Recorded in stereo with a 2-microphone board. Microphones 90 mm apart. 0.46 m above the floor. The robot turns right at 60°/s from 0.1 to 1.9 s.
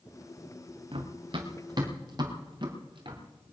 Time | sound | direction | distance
0.9 | running footsteps | 75° right (ahead or behind) | 2 m